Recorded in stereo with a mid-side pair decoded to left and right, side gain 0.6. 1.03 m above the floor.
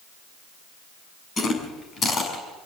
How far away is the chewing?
About 7 m.